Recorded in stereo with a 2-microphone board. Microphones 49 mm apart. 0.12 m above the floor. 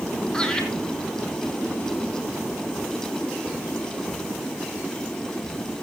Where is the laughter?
15° left (ahead or behind), 3.5 m.